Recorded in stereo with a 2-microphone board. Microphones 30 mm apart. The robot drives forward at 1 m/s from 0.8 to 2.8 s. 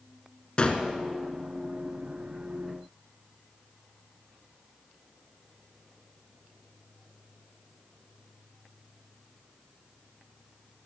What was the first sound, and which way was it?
A gunshot, 35° left (ahead or behind).